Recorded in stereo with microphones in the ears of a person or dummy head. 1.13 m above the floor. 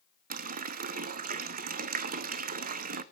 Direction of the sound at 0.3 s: 45° right (ahead or behind).